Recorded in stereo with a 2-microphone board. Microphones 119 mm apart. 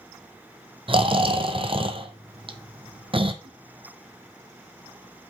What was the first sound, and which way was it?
Snoring, 50° right (ahead or behind).